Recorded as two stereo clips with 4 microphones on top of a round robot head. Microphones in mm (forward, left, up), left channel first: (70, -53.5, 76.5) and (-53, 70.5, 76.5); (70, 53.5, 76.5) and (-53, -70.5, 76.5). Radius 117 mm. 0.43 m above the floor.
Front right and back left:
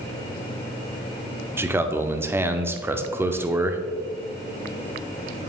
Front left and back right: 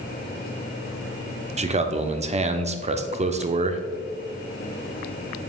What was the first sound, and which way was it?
A man speaking, 155° right.